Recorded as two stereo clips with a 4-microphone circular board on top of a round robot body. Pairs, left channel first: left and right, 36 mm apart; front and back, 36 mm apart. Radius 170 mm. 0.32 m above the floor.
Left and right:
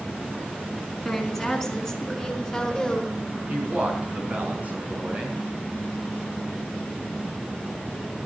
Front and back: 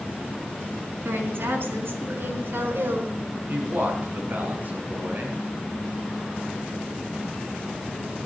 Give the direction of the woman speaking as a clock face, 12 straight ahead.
6 o'clock.